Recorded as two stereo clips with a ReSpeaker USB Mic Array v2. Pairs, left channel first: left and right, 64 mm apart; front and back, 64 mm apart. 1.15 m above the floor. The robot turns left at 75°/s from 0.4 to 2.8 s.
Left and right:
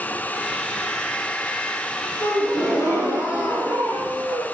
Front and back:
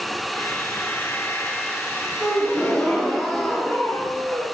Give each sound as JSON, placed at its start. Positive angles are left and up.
{"t": 2.2, "sound": "a gasp", "azimuth_deg": 120, "distance_m": 2.5}